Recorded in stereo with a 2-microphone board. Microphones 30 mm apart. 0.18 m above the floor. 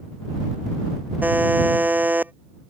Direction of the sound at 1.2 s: 80° right.